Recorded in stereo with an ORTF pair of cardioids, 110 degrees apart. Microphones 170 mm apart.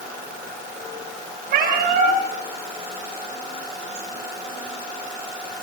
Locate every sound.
1.5 s a cat meowing: 70° right, 9 m